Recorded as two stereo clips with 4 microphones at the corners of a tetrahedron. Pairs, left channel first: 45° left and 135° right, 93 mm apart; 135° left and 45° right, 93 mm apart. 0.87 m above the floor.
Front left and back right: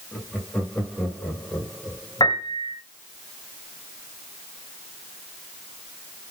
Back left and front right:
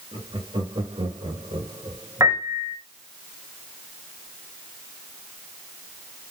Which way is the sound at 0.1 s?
30° right.